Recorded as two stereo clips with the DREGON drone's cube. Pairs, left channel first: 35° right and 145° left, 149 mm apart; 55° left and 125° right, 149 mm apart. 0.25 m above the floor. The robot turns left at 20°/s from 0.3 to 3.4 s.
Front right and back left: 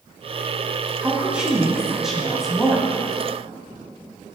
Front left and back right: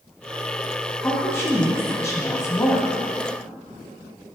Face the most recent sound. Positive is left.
turn(degrees=35)